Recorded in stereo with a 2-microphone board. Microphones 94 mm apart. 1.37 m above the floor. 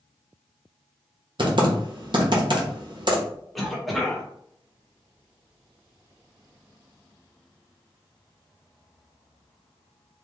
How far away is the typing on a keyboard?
About 1.0 m.